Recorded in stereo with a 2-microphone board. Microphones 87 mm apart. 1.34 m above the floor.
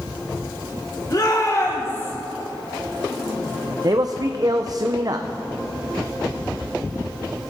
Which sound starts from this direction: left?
A shout, at 1.1 s.